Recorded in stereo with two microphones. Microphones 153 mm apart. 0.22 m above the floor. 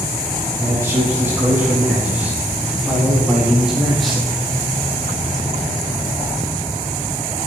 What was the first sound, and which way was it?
A man speaking, 20° right (ahead or behind).